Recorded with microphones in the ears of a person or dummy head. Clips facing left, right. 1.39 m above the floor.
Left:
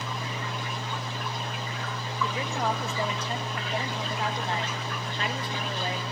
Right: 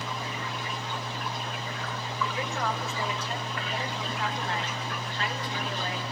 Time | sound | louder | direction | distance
2.2 | a woman speaking | left 2 dB | 15° left (ahead or behind) | 1.9 m